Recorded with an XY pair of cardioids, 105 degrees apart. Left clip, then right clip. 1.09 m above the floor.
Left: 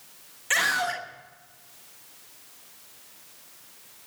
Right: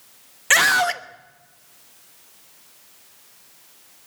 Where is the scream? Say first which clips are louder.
Right 8 dB; 60° right, 1.3 m.